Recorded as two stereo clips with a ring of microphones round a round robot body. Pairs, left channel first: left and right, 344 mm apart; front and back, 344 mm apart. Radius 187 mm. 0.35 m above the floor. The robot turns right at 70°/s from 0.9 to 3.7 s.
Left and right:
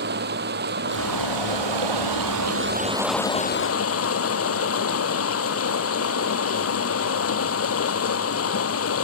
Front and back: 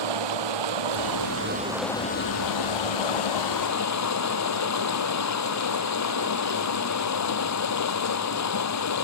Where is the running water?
155° right; by 9.0 s 40° left.